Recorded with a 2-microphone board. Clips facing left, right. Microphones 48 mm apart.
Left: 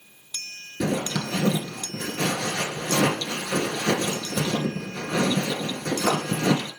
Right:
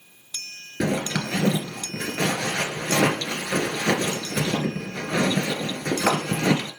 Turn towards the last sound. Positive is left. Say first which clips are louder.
# right 1 dB
turn(degrees=-65)  # may be behind; listen again after turning